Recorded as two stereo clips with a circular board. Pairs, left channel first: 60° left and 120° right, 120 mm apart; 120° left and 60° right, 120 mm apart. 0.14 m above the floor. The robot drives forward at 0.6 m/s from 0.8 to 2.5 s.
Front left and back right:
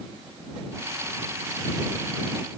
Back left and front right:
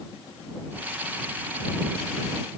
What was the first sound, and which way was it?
Only background noise.